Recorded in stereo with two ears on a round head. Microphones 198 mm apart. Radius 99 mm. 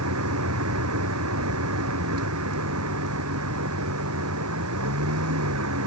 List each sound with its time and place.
0.0 s a vehicle: 80° right